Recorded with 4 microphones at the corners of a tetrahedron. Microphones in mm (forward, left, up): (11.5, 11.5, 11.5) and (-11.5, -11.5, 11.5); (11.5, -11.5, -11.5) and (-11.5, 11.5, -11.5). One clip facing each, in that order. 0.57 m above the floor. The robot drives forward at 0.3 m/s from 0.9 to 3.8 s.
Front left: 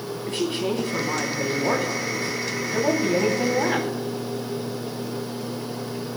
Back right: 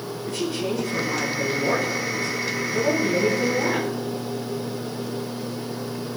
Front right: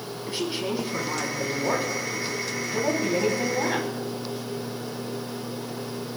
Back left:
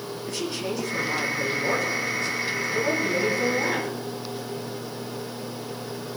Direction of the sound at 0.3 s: 20° left.